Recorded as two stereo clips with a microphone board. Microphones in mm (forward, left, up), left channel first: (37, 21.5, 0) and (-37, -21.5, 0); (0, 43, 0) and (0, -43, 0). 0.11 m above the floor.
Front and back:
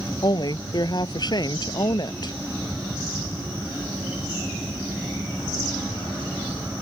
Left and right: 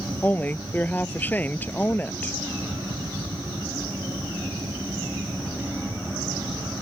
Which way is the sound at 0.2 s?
25° left.